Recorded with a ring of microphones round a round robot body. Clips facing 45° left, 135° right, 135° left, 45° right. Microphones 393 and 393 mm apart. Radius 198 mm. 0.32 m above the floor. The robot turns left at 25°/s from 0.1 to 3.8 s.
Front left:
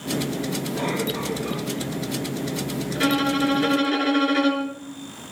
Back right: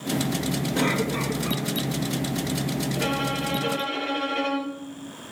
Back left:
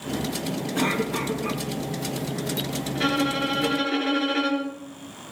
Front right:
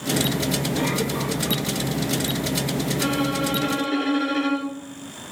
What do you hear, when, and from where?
0.8 s a cough: straight behind, 4.5 m; by 1.6 s 155° left, 4.5 m
3.0 s a violin: 75° left, 4.5 m; by 4.8 s 50° left, 4.5 m